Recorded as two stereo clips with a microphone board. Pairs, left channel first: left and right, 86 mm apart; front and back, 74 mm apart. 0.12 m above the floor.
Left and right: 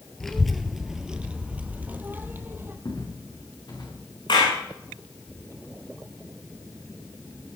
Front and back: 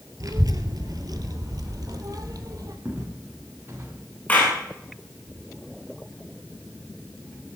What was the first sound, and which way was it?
A child speaking, 175° left.